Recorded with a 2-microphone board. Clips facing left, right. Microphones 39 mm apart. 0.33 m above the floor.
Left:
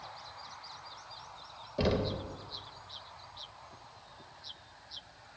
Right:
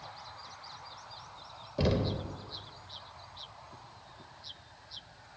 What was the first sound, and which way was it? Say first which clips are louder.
Knocking: even; 5° left (ahead or behind).